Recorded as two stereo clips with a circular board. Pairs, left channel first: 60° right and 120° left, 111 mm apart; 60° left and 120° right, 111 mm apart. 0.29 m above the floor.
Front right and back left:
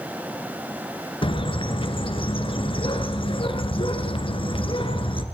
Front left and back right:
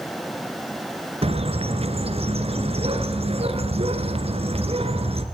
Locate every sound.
1.2 s a bird: 95° right, 2.0 m